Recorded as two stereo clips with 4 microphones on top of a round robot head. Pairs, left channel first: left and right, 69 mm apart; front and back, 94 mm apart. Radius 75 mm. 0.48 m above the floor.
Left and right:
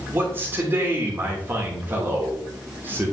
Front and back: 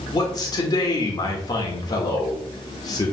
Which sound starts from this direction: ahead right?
A man speaking, at 0.1 s.